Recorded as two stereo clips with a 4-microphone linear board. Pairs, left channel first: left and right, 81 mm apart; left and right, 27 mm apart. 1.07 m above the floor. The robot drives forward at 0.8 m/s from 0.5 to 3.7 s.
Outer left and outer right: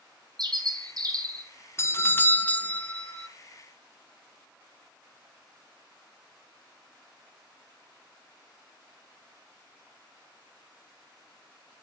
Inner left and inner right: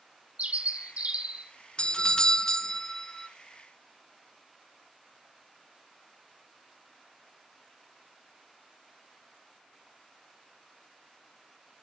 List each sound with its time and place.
0.4 s a bird: 60° right (ahead or behind), 3 m; by 1.5 s 50° right (ahead or behind), 3.5 m
1.8 s a doorbell: 35° left (ahead or behind), 0.7 m; by 3.3 s 15° left (ahead or behind), 1.6 m